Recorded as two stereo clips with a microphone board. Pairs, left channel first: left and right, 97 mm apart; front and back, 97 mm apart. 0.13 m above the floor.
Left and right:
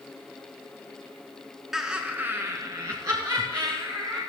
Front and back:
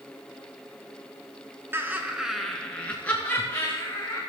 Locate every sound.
1.7 s laughter: 170° right, 1.2 m; by 4.2 s 50° right, 2.5 m